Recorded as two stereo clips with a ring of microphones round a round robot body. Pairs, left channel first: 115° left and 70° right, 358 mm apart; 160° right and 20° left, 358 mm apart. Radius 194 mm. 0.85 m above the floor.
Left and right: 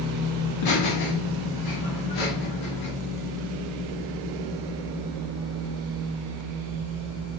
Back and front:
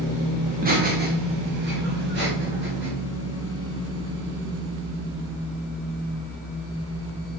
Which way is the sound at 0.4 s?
90° left.